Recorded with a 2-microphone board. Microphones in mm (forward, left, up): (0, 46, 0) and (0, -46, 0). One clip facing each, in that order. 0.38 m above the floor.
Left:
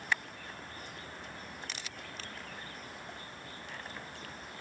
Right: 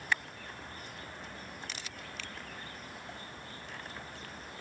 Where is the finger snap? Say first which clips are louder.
Right 1 dB; 35° left (ahead or behind).